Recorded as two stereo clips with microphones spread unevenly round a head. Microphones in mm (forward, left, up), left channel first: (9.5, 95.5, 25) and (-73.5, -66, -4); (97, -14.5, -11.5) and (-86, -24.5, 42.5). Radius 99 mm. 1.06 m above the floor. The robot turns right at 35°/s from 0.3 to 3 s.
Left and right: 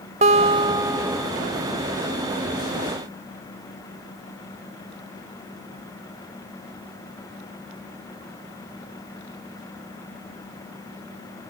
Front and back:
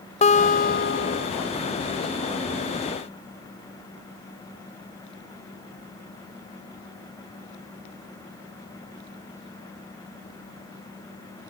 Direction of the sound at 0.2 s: 55° right.